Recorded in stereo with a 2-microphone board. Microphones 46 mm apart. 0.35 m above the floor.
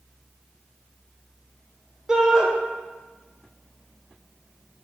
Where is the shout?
15° right (ahead or behind), 1.0 m.